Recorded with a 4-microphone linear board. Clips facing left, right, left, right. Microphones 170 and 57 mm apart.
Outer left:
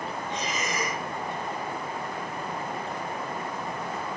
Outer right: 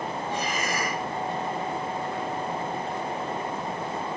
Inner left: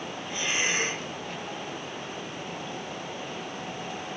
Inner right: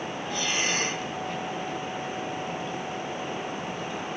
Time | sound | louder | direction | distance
0.3 | breathing | outer right 2 dB, inner left 1 dB | 20° left (ahead or behind) | 1.8 m